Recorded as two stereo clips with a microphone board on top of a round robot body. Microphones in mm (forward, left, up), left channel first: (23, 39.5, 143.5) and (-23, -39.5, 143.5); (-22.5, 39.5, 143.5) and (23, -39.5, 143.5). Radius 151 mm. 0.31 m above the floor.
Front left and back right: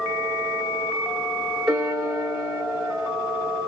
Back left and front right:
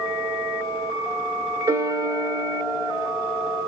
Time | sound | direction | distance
1.7 | a piano | 35° right | 1.7 m